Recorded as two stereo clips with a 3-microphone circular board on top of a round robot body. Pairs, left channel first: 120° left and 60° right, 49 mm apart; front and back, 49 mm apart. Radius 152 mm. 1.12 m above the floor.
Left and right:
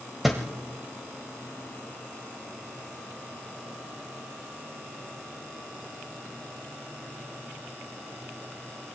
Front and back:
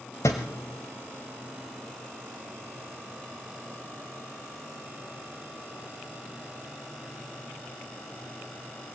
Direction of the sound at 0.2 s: 25° left.